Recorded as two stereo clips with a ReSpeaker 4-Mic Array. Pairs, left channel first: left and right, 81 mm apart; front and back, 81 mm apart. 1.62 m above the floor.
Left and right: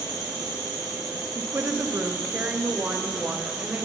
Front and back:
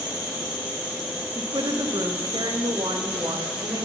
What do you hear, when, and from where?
0.0 s an insect: 110° right, 3.5 m
1.4 s a woman speaking: 160° right, 0.8 m